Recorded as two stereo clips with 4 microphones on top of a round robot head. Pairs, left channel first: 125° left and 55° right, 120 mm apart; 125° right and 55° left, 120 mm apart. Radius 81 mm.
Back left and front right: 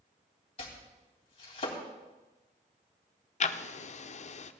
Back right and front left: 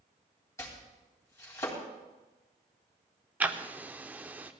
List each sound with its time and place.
0.6 s chopping: 170° left, 3.5 m
3.4 s ticking: 130° left, 0.7 m